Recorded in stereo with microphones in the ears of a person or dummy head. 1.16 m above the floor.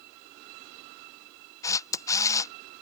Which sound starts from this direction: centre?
A camera shutter, at 1.6 s.